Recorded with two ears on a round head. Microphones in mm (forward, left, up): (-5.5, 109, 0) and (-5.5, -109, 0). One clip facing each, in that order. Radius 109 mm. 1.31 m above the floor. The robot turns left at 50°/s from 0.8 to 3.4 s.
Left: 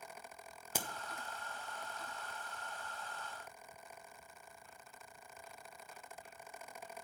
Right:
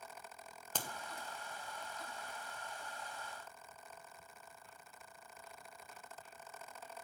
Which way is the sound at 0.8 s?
10° left (ahead or behind).